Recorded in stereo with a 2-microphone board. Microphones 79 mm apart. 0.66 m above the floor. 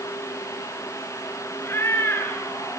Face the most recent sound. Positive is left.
turn(degrees=25)  # may be behind; listen again after turning